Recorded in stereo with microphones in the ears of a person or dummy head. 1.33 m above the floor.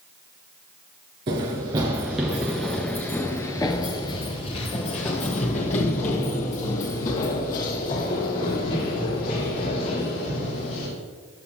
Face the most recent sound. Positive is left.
turn(degrees=50)  # may be behind; listen again after turning